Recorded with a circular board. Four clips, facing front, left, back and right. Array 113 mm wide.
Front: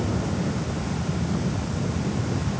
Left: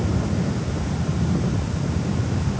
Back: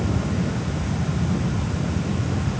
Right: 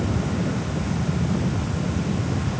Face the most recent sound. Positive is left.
No sound to turn to.